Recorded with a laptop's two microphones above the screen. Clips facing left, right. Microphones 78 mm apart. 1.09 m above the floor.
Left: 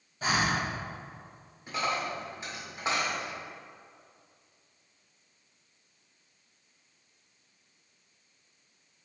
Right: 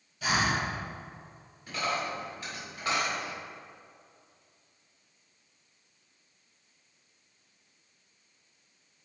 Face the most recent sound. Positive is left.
turn(degrees=25)  # may be behind; listen again after turning